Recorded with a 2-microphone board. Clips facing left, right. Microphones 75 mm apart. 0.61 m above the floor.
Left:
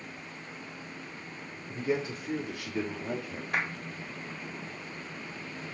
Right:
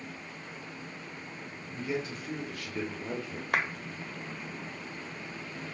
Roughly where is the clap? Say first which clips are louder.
Right 2 dB; right.